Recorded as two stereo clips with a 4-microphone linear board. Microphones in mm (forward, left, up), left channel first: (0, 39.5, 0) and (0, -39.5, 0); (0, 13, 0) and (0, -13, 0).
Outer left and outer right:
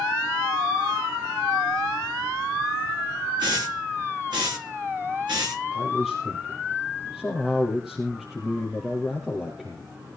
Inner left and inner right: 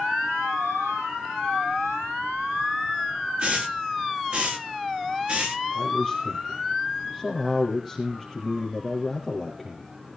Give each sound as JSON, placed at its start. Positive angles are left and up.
{"t": 3.4, "sound": "a hiss", "side_deg": -65, "distance_m": 7.0}
{"t": 5.7, "sound": "a man speaking", "side_deg": -5, "distance_m": 3.0}